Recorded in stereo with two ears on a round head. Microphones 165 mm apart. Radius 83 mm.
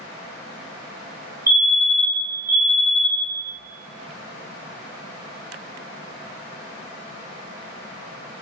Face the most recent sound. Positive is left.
turn(degrees=-15)  # may be behind; listen again after turning